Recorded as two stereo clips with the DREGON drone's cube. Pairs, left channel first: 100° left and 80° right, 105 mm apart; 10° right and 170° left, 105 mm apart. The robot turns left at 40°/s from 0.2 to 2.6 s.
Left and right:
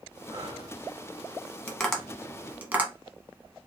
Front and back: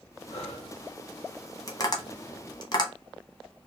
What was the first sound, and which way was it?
Breathing, 35° right.